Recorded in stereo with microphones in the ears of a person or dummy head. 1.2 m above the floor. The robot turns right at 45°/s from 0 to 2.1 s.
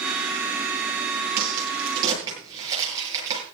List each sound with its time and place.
1.4 s a crack: 55° right (ahead or behind), 9.5 m; by 3.4 s 20° right (ahead or behind), 9.5 m